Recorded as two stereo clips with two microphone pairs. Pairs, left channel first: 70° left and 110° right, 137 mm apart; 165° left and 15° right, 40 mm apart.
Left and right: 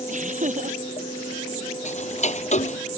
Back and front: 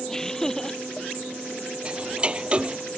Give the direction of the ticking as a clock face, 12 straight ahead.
10 o'clock.